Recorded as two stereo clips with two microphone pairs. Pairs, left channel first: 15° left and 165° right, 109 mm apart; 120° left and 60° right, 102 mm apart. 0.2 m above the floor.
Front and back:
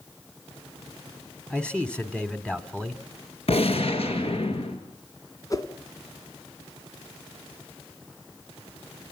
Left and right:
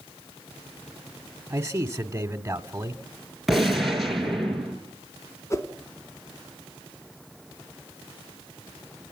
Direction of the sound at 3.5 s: 30° left.